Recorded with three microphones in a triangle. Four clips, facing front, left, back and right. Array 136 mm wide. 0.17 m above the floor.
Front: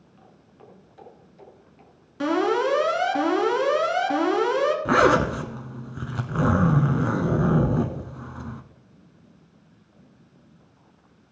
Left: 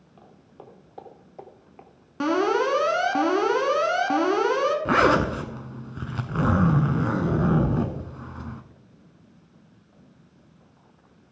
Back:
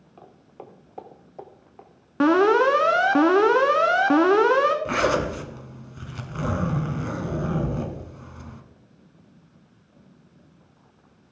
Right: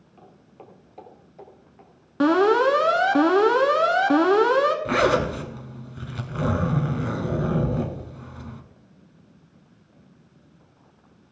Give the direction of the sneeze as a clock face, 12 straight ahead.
I don't hear a sneeze.